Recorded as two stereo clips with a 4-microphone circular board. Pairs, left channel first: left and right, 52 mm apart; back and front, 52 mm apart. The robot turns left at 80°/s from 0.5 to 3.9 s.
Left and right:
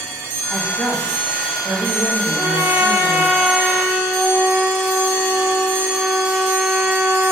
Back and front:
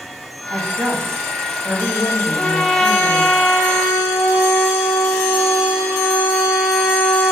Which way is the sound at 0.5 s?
15° left.